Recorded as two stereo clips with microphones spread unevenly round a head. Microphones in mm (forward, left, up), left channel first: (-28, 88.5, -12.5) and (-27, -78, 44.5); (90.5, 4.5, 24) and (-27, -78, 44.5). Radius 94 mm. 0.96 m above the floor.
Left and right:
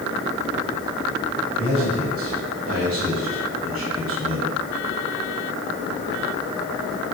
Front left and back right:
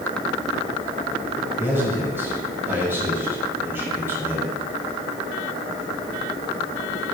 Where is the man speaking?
70° right, 6 m.